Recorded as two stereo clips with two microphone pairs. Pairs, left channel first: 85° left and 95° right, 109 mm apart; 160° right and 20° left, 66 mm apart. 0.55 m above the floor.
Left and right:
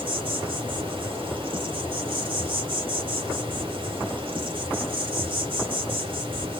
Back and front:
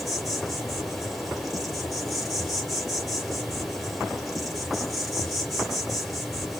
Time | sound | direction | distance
0.0 | an insect | 65° right | 1.5 m